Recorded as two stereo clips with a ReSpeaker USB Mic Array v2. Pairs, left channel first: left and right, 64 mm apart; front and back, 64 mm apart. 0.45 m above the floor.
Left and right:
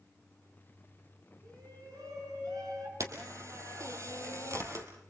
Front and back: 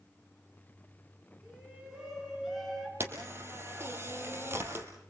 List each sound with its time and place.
1.4 s a shout: 105° right, 6.5 m; by 2.9 s 95° right, 6.5 m
3.0 s a camera shutter: 125° right, 4 m